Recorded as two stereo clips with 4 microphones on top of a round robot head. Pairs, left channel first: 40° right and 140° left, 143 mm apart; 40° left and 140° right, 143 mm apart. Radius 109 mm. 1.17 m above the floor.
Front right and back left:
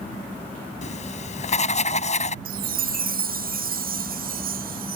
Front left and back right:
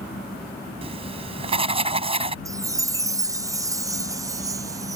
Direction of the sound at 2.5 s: 155° left.